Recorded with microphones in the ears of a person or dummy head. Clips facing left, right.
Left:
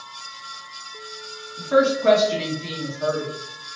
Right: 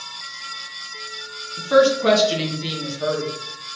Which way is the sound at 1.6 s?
45° right (ahead or behind).